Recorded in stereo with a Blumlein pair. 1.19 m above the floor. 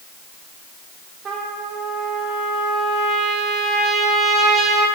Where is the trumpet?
25° right, 1.8 m.